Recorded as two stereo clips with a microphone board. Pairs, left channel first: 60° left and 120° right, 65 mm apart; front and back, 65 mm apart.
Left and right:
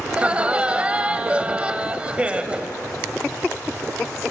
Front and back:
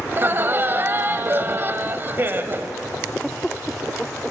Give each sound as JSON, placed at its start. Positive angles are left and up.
{"t": 0.1, "sound": "laughter", "azimuth_deg": -175, "distance_m": 1.2}